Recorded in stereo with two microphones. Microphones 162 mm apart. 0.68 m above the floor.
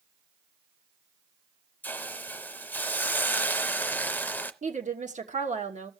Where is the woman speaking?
50° right (ahead or behind), 1.3 m.